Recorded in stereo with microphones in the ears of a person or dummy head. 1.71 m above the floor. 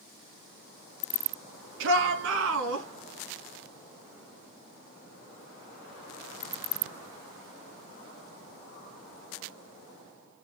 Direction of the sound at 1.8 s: 65° right (ahead or behind).